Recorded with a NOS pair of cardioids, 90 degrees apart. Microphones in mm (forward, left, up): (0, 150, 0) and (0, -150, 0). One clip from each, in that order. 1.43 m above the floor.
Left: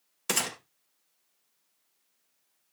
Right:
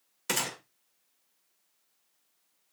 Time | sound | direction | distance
0.3 | a gunshot | 20° left | 1.9 m